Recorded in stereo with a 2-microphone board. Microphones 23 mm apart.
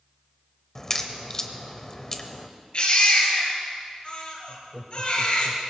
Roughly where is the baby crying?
Left.